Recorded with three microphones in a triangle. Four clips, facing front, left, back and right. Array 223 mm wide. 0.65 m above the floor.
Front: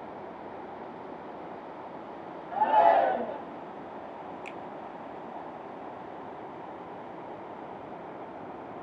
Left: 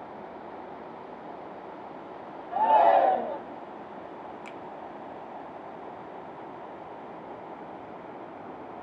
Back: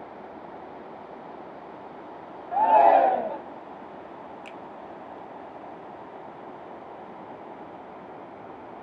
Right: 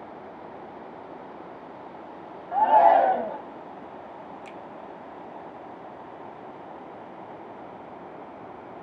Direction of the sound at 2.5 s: 140° right.